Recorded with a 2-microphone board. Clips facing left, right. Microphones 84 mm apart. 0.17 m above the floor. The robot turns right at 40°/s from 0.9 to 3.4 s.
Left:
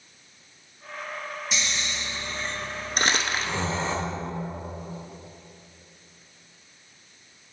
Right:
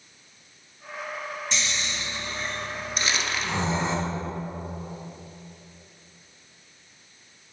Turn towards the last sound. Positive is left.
turn(degrees=45)  # may be behind; listen again after turning